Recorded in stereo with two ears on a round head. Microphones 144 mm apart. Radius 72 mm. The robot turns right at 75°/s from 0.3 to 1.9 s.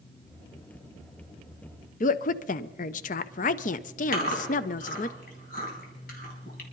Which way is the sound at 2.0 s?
50° left (ahead or behind).